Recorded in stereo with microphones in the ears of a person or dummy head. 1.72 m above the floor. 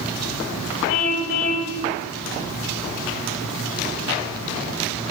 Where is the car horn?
65° left (ahead or behind), 6 m.